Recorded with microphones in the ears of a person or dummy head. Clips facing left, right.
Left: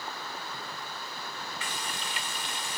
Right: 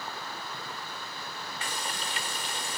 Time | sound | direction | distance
1.6 | frying | 45° right (ahead or behind) | 0.7 m